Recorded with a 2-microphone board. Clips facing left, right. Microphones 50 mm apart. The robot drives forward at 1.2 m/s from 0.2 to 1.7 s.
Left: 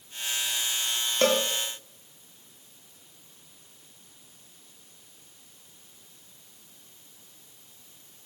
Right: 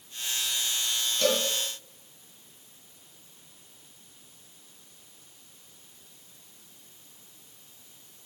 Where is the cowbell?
45° left (ahead or behind), 1.3 m; by 1.4 s 40° left (ahead or behind), 1.4 m.